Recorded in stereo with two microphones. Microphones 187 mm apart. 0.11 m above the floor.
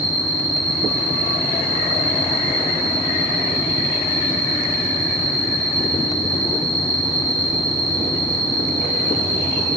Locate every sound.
0.0 s an insect: 45° right (ahead or behind), 7 m